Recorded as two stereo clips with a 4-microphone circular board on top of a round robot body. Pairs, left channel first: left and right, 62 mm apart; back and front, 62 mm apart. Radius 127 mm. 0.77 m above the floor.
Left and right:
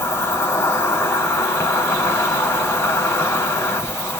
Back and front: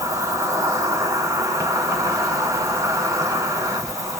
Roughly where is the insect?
Ahead left.